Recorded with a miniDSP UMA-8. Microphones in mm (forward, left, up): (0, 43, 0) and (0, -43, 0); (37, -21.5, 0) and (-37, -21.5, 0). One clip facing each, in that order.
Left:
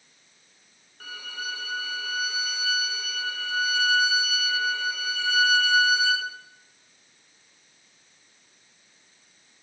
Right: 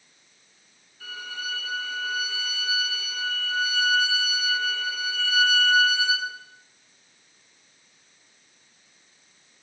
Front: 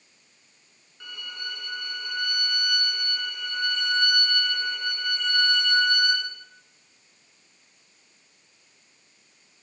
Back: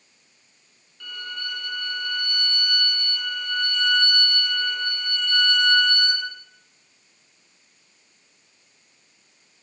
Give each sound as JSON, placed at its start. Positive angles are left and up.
{"t": 1.0, "sound": "a violin", "azimuth_deg": 70, "distance_m": 0.9}